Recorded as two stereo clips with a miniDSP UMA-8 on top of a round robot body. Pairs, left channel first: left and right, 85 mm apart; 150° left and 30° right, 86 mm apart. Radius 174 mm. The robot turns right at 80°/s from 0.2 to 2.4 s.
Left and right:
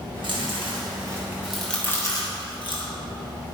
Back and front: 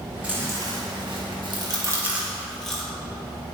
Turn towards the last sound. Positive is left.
turn(degrees=65)